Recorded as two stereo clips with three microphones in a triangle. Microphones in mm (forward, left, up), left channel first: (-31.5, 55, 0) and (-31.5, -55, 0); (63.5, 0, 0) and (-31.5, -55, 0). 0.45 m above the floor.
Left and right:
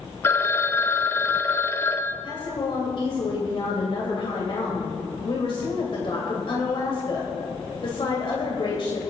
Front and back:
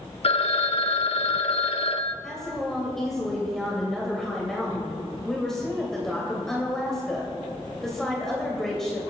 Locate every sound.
0.2 s a phone ringing: 30° left, 0.7 m
2.2 s a woman speaking: 115° left, 2.5 m